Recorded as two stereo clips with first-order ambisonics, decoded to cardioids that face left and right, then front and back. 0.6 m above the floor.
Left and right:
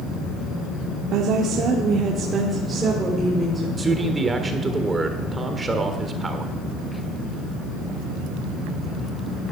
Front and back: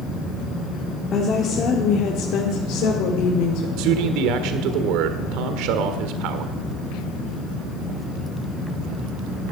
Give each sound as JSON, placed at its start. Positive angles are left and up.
{"t": 1.1, "sound": "a woman speaking", "azimuth_deg": -60, "distance_m": 1.7}
{"t": 3.8, "sound": "a man speaking", "azimuth_deg": -165, "distance_m": 1.3}